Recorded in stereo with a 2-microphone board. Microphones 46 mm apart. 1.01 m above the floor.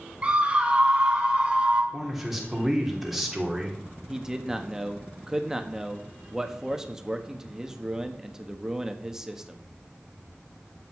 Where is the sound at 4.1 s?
15° right (ahead or behind), 1.3 m.